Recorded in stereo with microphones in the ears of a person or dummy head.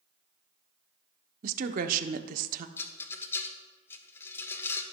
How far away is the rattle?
About 1.0 m.